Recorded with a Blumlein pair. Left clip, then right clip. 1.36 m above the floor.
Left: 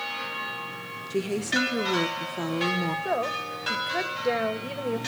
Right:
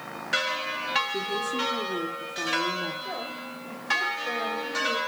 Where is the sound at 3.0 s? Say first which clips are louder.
Left 7 dB; 40° left, 1.7 m.